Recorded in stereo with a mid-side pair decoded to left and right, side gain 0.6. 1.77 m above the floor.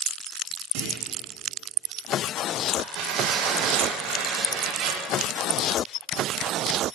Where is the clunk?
65° right, 2 m.